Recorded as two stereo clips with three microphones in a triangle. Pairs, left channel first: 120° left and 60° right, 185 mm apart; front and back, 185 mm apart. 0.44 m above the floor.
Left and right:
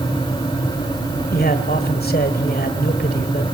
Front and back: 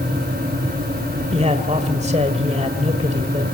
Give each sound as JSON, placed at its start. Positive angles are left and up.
{"t": 1.3, "sound": "a man speaking", "azimuth_deg": 135, "distance_m": 1.6}